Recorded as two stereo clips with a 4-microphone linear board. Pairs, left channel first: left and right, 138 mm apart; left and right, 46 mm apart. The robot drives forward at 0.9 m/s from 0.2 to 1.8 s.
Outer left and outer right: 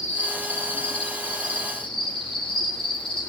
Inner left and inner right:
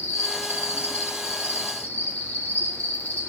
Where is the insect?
50° left (ahead or behind), 4 m; by 3.3 s 40° left (ahead or behind), 5 m.